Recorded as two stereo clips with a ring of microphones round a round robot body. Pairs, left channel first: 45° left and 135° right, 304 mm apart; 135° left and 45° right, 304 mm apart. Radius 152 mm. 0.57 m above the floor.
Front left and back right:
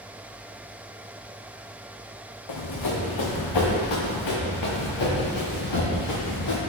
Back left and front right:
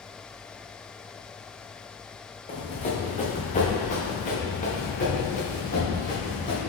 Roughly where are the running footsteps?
Ahead left.